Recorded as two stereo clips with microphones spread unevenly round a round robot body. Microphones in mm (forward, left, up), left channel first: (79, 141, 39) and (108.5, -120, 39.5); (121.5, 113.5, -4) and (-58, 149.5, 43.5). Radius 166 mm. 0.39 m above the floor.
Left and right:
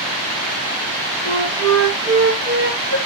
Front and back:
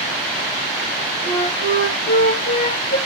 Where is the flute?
60° right, 5.5 m.